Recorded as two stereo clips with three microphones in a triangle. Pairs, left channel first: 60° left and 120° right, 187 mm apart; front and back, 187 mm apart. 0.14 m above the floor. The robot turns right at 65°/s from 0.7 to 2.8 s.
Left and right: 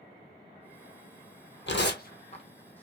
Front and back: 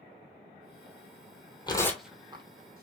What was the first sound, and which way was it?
Tearing paper, 65° left.